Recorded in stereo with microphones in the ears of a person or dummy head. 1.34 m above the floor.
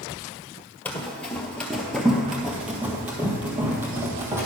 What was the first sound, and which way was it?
Running footsteps, 10° left (ahead or behind).